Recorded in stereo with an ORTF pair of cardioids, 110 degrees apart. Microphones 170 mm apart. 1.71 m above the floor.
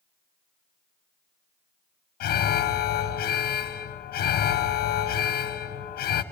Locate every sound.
2.2 s an alarm: 65° left, 1.6 m